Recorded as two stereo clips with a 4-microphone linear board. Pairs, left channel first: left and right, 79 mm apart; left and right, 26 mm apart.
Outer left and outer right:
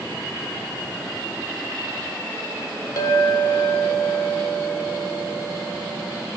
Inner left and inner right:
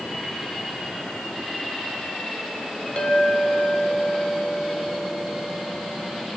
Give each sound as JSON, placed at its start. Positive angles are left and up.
{"t": 3.0, "sound": "a clink", "side_deg": 45, "distance_m": 1.0}